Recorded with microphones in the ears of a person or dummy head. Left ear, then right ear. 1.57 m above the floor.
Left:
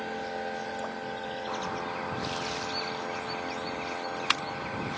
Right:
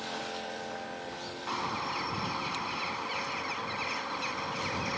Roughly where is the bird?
Right.